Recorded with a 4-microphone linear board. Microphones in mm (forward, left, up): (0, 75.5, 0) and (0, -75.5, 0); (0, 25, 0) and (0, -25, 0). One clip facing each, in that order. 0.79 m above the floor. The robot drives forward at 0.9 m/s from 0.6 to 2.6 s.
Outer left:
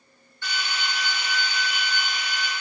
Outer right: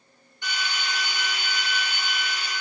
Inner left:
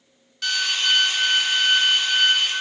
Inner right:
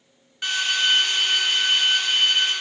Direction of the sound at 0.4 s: 15° right (ahead or behind).